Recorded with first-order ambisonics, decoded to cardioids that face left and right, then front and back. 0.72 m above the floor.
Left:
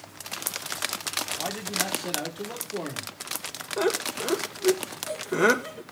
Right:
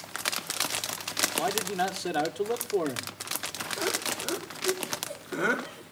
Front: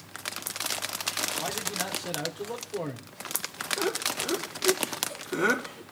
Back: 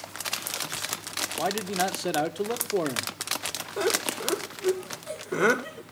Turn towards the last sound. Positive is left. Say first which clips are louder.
# left 5 dB, back 4 dB
turn(degrees=130)